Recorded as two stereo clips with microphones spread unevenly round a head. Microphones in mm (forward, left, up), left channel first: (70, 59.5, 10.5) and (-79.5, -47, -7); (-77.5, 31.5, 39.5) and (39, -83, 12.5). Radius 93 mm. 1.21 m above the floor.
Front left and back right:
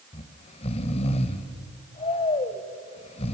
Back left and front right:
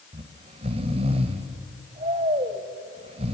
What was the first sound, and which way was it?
Snoring, 15° left.